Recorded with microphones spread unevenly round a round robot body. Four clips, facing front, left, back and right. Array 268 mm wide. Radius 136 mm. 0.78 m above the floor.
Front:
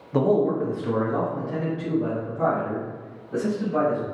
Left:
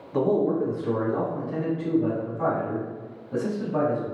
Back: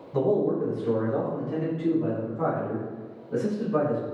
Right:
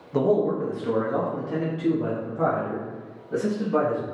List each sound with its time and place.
0.1 s a man speaking: 15° right, 0.9 m; by 4.0 s 110° right, 2 m